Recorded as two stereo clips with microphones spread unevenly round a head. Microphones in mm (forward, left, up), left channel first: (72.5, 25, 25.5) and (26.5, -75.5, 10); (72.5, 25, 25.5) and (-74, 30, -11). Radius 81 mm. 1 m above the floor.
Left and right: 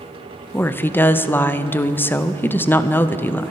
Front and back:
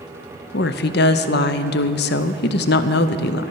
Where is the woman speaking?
10° right, 0.7 m.